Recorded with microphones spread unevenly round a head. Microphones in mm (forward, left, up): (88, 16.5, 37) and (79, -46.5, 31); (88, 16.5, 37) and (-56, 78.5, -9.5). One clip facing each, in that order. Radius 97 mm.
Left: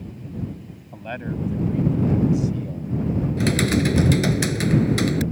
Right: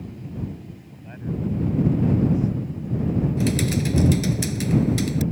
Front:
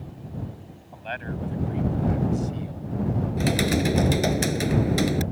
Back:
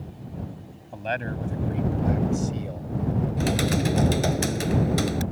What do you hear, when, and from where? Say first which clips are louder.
0.9 s a man speaking: left 2 dB, back 4 dB; 120° left
3.4 s typing on a keyboard: left 3 dB, front 3 dB; 50° left